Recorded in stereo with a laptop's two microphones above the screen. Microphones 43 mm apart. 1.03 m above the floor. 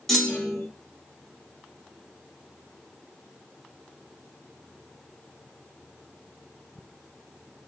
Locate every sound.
0.1 s a clunk: 5° left (ahead or behind), 1.3 m